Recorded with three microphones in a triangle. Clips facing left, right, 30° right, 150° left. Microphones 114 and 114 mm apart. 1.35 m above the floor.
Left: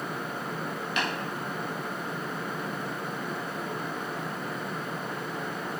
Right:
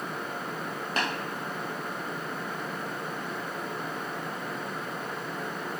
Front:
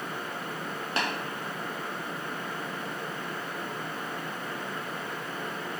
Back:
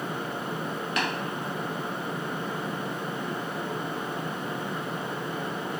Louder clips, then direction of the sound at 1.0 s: Right 1 dB, back 1 dB; 70° right.